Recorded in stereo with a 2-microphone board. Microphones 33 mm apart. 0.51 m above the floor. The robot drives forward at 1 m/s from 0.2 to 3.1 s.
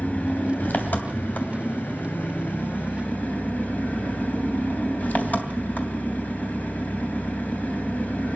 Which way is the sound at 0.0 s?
55° left (ahead or behind).